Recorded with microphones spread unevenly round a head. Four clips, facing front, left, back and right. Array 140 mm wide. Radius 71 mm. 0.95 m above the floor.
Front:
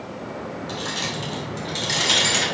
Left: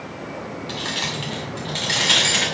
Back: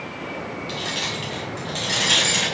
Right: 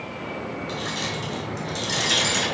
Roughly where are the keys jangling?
Left.